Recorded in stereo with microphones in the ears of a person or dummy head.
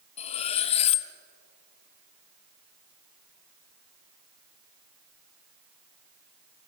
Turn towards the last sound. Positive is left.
turn(degrees=30)  # may be behind; listen again after turning